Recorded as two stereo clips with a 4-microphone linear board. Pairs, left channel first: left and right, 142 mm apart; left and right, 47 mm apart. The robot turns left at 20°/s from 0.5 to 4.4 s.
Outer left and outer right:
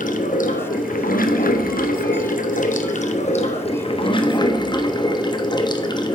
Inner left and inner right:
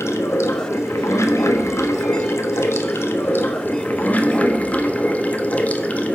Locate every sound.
0.0 s running water: 110° left, 0.9 m; by 6.2 s 30° left, 0.9 m